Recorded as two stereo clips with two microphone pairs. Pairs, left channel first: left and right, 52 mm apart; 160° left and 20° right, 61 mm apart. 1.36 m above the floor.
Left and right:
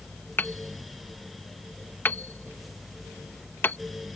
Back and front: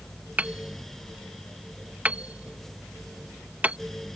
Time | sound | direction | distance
0.4 | hammering | 45° left | ?